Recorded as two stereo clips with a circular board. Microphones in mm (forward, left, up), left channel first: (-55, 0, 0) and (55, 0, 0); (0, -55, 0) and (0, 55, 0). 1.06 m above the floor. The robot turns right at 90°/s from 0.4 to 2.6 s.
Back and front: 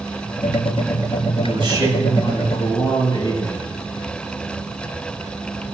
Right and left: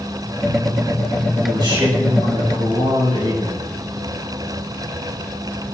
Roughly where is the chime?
No chime in this recording.